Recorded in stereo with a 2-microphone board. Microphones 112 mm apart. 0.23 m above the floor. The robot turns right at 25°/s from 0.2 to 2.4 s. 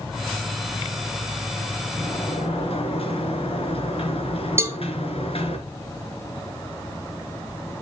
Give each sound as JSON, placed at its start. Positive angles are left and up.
{"t": 2.0, "sound": "a sliding door", "side_deg": 50, "distance_m": 3.0}
{"t": 4.6, "sound": "a cowbell", "side_deg": -20, "distance_m": 0.8}